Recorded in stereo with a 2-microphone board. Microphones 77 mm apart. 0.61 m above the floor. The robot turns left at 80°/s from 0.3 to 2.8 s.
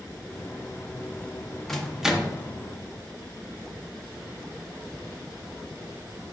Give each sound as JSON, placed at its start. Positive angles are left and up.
{"t": 1.7, "sound": "a microwave", "side_deg": 5, "distance_m": 0.6}